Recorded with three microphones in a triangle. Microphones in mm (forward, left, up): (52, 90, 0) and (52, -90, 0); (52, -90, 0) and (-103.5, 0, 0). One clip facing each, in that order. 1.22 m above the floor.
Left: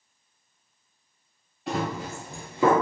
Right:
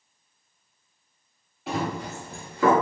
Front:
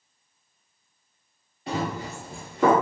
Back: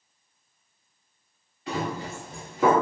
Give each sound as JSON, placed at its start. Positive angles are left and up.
{"t": 1.7, "sound": "running footsteps", "azimuth_deg": 0, "distance_m": 1.4}